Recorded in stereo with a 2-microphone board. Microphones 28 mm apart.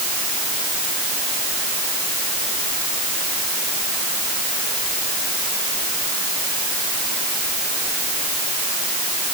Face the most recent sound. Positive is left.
No sound to turn to.